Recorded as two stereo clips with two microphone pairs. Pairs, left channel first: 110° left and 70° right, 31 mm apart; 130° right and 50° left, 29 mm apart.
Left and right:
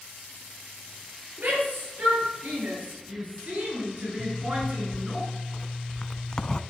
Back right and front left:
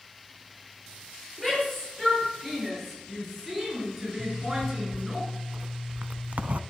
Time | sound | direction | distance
1.4 | a shout | 45° right | 9.5 m
4.2 | a zipper | 50° left | 0.7 m